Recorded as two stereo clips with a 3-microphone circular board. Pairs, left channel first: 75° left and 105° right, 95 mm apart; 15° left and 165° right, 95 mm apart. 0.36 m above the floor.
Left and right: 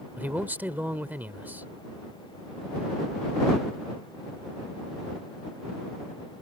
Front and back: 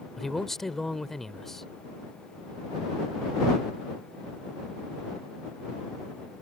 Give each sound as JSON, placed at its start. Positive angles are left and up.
{"t": 0.2, "sound": "a man speaking", "azimuth_deg": -65}